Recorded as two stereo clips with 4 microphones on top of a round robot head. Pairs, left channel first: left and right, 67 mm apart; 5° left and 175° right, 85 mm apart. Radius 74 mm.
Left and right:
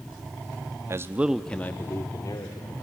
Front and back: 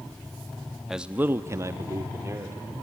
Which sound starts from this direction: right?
A man speaking, at 0.9 s.